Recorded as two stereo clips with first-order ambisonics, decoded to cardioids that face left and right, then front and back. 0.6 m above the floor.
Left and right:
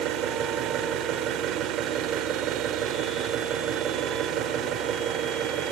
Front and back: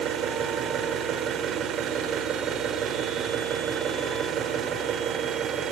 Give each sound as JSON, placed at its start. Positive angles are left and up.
{"t": 0.0, "sound": "an engine running", "azimuth_deg": -130, "distance_m": 1.5}